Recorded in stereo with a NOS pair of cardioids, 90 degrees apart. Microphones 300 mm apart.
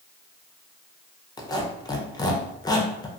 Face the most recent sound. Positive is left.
turn(degrees=15)